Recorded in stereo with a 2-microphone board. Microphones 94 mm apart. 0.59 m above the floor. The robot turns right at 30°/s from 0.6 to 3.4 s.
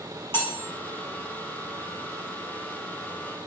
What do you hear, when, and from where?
0.3 s cutlery clinking: 25° left (ahead or behind), 0.7 m